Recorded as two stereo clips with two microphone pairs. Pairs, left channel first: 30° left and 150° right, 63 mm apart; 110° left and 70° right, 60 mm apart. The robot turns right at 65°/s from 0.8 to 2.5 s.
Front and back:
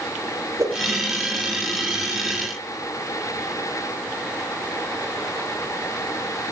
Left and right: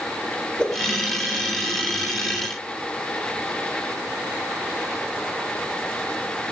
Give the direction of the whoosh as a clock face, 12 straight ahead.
6 o'clock.